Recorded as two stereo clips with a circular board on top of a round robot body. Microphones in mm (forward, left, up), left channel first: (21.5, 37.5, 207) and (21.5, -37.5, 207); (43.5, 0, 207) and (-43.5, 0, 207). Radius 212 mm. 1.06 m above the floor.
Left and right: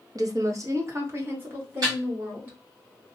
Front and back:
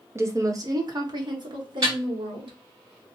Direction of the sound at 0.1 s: 120° right.